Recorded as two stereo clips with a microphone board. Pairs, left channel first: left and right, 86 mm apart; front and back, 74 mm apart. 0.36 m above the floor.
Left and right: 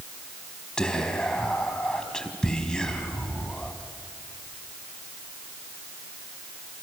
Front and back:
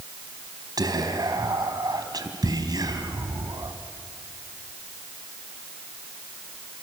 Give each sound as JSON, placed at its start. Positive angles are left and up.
{"t": 0.8, "sound": "whispering", "azimuth_deg": 170, "distance_m": 3.0}